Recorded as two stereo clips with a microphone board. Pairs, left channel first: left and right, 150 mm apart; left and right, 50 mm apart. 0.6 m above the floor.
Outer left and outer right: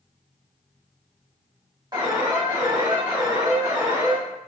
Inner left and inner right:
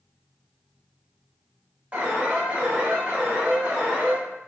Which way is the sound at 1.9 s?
30° right (ahead or behind).